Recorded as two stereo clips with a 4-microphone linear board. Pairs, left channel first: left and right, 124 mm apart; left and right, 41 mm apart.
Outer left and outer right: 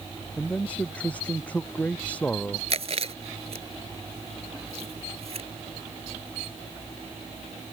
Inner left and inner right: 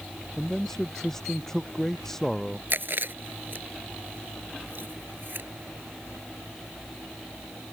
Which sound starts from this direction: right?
Chewing, at 2.7 s.